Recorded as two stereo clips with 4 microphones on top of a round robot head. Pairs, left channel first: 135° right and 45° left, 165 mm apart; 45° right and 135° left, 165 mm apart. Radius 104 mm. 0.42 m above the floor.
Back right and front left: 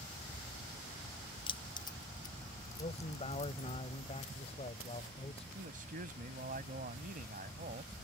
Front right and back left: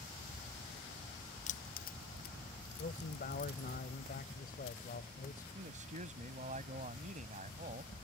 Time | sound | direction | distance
1.5 | keys jangling | 80° right | ?
2.8 | a man speaking | 85° right | ?
5.5 | a man speaking | 90° left | ?